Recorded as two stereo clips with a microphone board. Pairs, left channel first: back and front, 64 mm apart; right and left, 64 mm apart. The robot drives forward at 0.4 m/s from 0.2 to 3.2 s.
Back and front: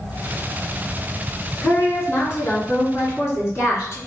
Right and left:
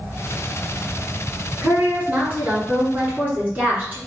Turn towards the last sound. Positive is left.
turn(degrees=150)